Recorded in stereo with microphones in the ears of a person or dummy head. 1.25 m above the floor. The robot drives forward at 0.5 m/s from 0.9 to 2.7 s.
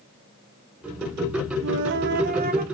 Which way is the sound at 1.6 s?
60° right (ahead or behind).